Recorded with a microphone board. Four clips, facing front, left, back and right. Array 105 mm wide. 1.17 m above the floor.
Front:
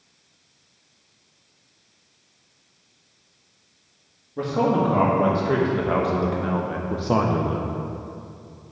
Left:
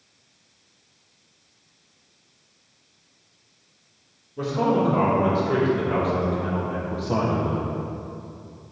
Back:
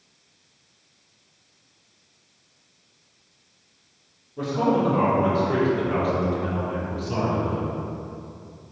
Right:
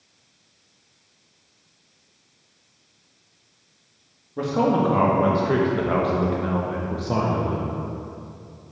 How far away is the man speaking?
About 1.8 m.